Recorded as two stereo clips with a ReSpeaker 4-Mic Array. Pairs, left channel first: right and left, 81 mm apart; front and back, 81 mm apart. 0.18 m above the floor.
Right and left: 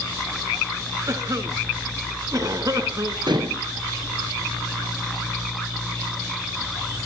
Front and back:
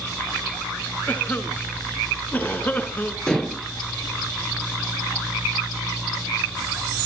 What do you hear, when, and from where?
1.1 s a cough: 60° left, 2 m
3.3 s dishes clattering: 80° left, 2 m